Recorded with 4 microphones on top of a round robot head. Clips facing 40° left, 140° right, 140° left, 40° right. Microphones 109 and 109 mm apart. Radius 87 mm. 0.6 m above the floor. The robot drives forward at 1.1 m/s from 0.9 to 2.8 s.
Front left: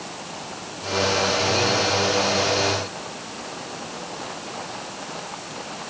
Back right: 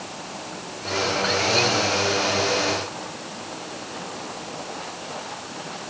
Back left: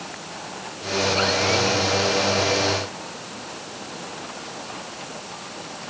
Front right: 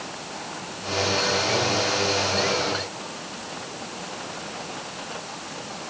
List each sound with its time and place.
Only background noise.